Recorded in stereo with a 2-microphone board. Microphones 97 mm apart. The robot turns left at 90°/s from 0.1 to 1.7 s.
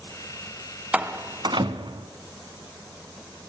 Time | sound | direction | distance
0.9 | a door slam | 15° right (ahead or behind) | 1.4 m